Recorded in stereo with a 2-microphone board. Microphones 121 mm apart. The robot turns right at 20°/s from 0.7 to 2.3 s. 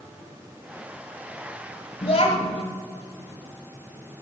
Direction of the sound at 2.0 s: 60° left (ahead or behind).